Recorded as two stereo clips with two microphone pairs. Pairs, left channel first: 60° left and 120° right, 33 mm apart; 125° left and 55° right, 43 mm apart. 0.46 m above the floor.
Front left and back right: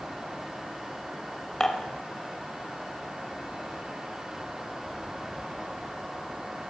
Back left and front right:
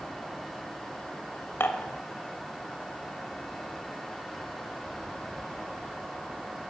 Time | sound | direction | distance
1.6 | dishes clattering | 125° left | 1.2 m